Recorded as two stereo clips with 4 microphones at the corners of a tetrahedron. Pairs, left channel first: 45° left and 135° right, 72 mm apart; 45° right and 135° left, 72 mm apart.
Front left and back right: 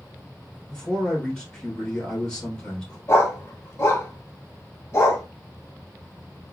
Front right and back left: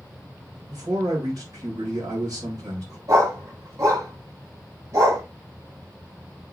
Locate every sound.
0.7 s a man speaking: 125° left, 2.5 m
3.1 s a dog barking: 100° left, 1.8 m